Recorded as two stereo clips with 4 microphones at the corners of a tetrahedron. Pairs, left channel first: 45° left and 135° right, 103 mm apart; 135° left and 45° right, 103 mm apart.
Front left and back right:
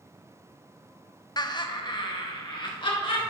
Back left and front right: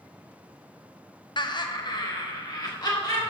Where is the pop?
I don't hear a pop.